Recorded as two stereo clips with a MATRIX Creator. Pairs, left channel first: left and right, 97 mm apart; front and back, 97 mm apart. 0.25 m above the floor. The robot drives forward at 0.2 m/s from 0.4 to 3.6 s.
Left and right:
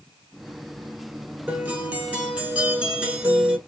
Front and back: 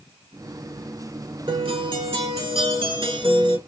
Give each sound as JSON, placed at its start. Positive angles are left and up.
{"t": 1.5, "sound": "a guitar", "azimuth_deg": -165, "distance_m": 0.6}